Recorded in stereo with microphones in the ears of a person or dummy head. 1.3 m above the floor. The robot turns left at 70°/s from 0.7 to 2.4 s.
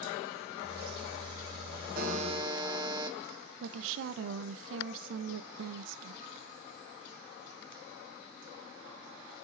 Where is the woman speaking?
70° right (ahead or behind), 0.7 m.